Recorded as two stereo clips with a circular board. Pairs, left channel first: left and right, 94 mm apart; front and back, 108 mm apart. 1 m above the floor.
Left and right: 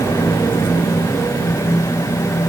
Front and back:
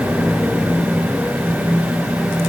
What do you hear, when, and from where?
Only background noise.